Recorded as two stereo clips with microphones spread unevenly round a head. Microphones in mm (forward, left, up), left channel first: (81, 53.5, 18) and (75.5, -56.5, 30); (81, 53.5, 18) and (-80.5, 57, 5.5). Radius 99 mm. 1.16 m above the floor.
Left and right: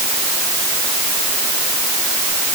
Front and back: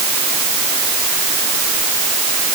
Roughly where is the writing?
No writing in this recording.